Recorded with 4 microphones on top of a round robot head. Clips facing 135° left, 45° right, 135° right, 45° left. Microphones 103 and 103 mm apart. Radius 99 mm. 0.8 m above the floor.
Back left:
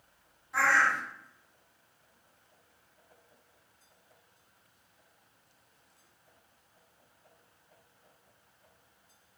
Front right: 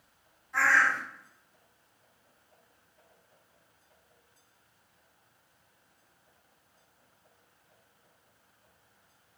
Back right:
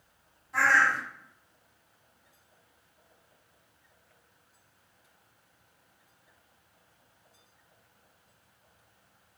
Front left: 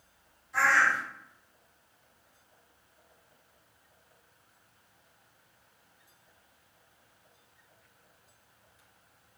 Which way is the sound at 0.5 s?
150° right.